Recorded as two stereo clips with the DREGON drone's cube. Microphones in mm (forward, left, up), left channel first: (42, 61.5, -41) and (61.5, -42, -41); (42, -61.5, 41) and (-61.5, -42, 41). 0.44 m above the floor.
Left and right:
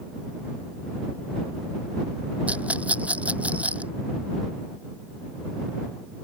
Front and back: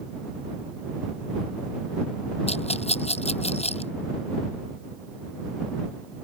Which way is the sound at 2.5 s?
Straight ahead.